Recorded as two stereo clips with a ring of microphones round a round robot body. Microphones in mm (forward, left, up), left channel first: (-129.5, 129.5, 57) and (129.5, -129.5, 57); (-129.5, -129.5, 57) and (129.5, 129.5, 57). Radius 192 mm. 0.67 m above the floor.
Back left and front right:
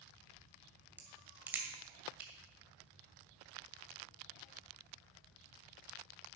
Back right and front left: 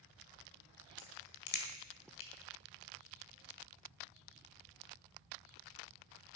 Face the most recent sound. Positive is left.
turn(degrees=-130)